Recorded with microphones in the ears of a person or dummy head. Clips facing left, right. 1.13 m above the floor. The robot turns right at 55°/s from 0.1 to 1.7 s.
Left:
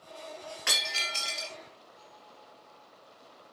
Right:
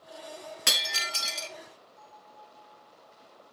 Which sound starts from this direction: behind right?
Breaking glass, at 0.7 s.